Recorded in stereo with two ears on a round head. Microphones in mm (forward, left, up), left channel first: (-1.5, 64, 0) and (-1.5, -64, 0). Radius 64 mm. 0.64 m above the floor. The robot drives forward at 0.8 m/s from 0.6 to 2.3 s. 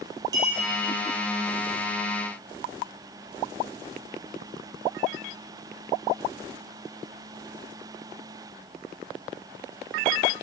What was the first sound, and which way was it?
A clink, 30° right (ahead or behind).